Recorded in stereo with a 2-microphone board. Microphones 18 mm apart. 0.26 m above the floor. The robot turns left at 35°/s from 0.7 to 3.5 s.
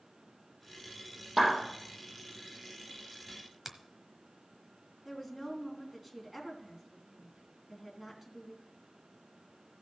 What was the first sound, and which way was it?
A clap, 10° right (ahead or behind).